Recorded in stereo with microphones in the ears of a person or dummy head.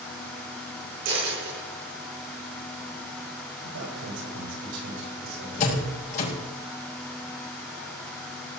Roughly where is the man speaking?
Right.